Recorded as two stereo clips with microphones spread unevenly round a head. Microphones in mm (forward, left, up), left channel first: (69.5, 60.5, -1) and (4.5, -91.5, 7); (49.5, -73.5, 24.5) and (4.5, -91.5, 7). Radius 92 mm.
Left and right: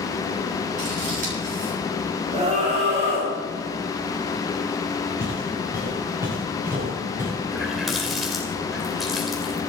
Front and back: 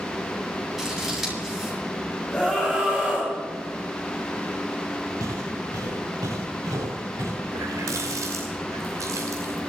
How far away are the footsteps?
About 9 m.